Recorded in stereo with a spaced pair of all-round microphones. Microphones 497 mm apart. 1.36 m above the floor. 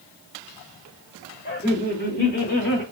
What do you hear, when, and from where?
1.4 s laughter: 25° left (ahead or behind), 3.5 m; by 2.8 s 20° left (ahead or behind), 2 m